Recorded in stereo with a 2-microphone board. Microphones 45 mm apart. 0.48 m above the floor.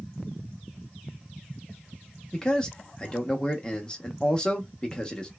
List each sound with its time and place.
2.3 s a man speaking: 15° left (ahead or behind), 0.8 m